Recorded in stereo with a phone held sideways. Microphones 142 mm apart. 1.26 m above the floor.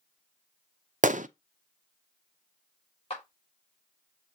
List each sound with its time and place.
1.0 s a gunshot: 60° right (ahead or behind), 0.5 m
3.1 s a clap: 45° left (ahead or behind), 3 m